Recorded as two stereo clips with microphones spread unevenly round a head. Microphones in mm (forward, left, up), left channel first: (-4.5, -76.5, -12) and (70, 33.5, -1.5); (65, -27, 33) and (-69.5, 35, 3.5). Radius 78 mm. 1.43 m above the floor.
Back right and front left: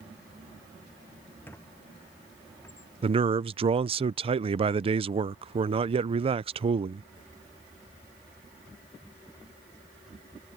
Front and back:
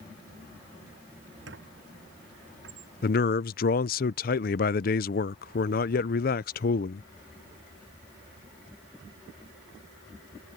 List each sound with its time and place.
1.5 s a squeak: 155° left
3.0 s a man speaking: 5° left